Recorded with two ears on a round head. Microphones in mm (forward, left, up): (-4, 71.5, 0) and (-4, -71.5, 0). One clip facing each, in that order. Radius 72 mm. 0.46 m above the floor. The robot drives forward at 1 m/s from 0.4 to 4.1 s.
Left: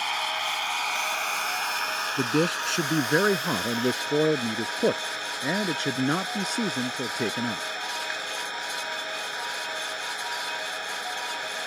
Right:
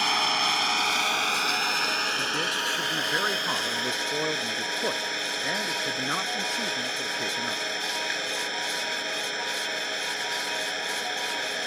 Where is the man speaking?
55° left (ahead or behind); by 7.6 s 40° left (ahead or behind).